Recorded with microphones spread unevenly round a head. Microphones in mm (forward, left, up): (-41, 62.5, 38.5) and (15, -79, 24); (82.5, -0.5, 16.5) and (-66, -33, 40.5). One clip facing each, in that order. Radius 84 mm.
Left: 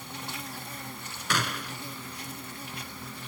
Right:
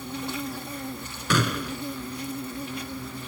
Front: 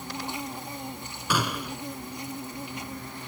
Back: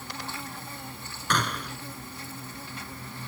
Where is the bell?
No bell in this recording.